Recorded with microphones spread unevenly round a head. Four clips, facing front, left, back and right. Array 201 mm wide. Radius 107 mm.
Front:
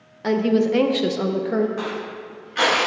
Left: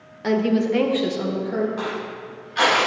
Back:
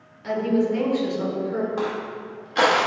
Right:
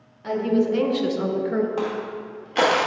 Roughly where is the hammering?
I don't hear hammering.